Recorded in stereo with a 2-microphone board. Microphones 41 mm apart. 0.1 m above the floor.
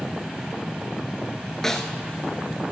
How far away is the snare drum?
About 0.9 m.